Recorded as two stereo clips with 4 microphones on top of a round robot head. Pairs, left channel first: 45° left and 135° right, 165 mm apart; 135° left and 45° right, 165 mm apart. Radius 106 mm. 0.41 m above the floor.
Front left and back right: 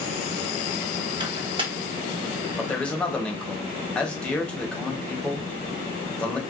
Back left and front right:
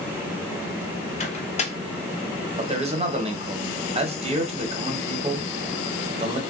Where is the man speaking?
35° right, 1.0 m.